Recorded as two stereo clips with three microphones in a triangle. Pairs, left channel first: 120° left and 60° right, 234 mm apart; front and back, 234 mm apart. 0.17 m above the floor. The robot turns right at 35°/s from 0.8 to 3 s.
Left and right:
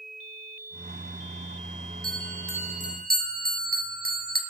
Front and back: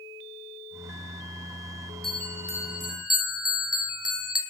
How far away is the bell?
About 2 m.